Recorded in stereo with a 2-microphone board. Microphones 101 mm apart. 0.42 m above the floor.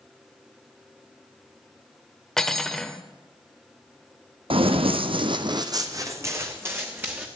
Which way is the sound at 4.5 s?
60° right (ahead or behind).